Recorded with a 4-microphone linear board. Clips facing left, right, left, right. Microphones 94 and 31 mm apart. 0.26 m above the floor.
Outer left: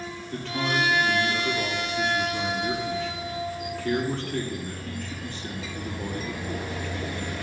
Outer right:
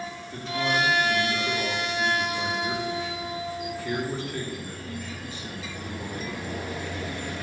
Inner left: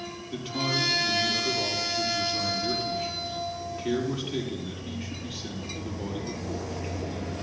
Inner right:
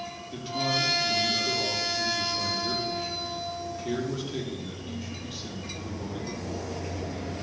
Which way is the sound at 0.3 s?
70° left (ahead or behind).